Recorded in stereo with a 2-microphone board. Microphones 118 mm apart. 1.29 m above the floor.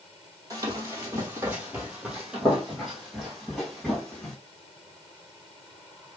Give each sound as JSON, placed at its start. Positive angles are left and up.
{"t": 0.5, "sound": "running footsteps", "side_deg": -30, "distance_m": 1.5}